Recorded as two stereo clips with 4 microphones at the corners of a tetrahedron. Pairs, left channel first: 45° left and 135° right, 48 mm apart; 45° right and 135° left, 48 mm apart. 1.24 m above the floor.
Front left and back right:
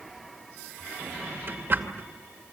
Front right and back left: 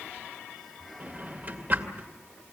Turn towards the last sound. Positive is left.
turn(degrees=-175)